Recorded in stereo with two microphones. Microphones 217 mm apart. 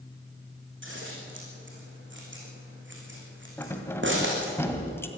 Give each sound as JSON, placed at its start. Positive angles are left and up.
{"t": 0.8, "sound": "scissors", "side_deg": -60, "distance_m": 4.5}
{"t": 3.6, "sound": "keys jangling", "side_deg": 10, "distance_m": 1.8}